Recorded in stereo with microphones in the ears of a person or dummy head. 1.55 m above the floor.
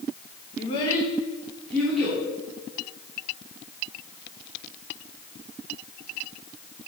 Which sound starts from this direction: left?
A child speaking, at 0.6 s.